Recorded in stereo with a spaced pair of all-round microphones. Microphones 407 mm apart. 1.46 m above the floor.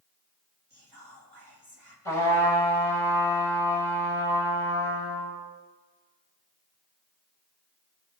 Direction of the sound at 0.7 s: 70° right (ahead or behind).